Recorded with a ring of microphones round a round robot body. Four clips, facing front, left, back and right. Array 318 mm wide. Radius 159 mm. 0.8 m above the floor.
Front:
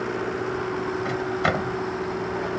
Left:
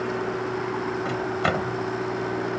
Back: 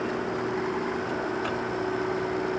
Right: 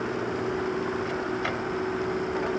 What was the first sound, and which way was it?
A microwave, 40° left.